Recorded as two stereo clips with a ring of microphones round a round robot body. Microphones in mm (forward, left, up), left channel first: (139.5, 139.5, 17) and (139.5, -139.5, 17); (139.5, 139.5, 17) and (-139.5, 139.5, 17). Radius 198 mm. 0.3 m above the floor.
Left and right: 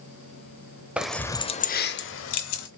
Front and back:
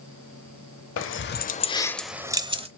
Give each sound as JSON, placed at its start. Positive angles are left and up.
{"t": 1.0, "sound": "keys jangling", "azimuth_deg": -5, "distance_m": 0.8}